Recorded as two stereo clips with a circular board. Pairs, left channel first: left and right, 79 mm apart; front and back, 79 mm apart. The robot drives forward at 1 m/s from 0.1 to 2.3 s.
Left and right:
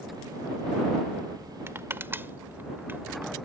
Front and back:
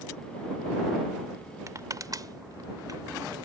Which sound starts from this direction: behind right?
Crushing, at 1.7 s.